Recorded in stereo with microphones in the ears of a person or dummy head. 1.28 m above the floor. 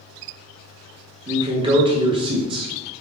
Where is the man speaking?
25° right (ahead or behind), 0.7 m.